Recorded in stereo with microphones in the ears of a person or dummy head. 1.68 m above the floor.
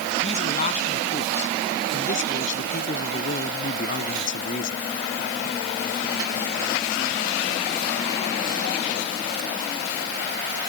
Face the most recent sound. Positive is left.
turn(degrees=45)  # may be behind; listen again after turning